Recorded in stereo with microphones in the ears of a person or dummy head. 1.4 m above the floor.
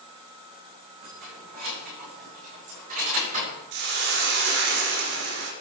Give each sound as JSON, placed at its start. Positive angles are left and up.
{"t": 1.0, "sound": "keys jangling", "side_deg": -55, "distance_m": 6.5}
{"t": 3.7, "sound": "a hiss", "side_deg": -65, "distance_m": 1.8}